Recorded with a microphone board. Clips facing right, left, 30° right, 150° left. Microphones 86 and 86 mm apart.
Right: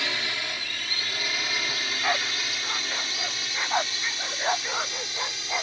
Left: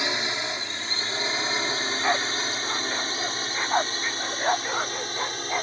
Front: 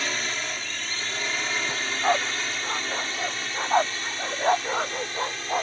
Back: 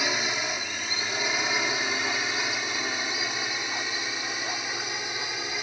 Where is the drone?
95° left; by 5.6 s 75° left.